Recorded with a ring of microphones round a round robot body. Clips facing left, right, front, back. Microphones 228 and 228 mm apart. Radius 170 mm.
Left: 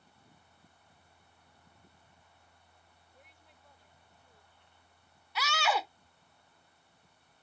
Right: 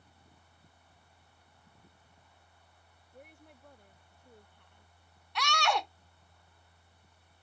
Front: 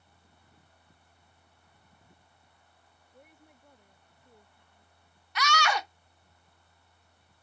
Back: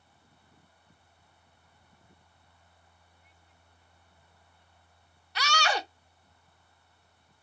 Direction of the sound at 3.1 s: 55° right.